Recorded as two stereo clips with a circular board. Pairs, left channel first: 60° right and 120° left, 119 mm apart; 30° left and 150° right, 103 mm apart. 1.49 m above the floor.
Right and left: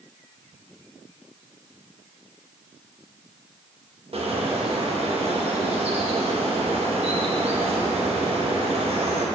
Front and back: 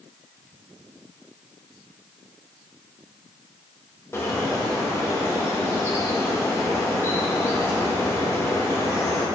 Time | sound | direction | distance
4.1 | a bird | 90° left | 1.3 m